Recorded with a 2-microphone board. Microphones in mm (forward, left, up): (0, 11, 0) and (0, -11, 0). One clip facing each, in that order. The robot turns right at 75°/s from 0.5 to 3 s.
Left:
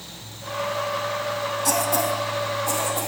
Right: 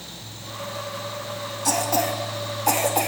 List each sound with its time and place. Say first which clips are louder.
1.6 s a cough: right 1 dB; 5° right (ahead or behind), 1.5 m; by 3.1 s 65° right (ahead or behind), 1.5 m